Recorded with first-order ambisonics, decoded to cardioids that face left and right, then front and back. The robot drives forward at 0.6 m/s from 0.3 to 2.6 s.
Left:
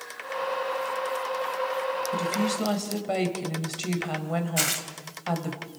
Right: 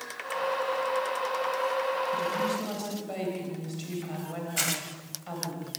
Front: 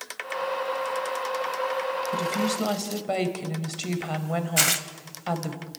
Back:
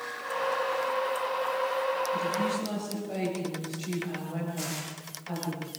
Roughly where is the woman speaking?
Ahead left.